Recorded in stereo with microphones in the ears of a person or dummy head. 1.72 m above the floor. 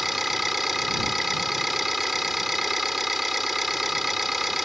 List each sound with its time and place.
0.0 s an engine running: centre (ahead or behind)